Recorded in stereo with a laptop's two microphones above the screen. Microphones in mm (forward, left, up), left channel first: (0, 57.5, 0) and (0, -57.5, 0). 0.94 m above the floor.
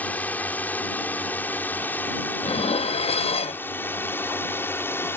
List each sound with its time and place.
0.0 s a drone: 15° left (ahead or behind); by 5.2 s 20° left (ahead or behind)
2.4 s dishes clattering: 55° left (ahead or behind)